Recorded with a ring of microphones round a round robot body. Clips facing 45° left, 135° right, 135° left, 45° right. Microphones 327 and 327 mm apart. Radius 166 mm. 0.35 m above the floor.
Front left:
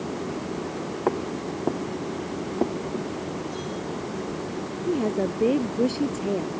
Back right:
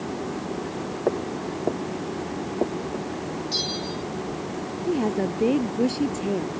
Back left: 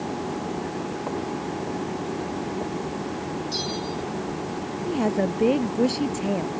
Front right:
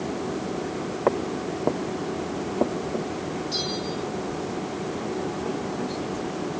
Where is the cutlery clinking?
I don't hear cutlery clinking.